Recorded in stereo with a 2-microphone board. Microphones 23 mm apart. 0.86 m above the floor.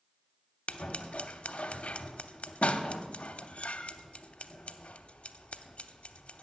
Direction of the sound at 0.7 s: 65° left (ahead or behind).